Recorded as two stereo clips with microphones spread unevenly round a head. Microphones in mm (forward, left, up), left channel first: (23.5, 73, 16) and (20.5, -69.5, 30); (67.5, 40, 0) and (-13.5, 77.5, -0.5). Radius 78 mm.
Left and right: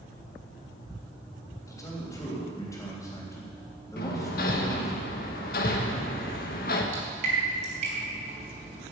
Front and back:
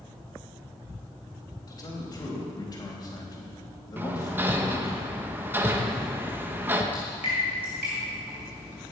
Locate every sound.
1.7 s a man speaking: 20° left, 3.5 m
4.0 s hammering: 95° left, 1.2 m
6.9 s dripping: 130° right, 3 m